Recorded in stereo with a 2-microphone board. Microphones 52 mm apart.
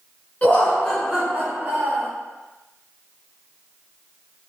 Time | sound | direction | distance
0.4 | laughter | 30° left (ahead or behind) | 1.4 m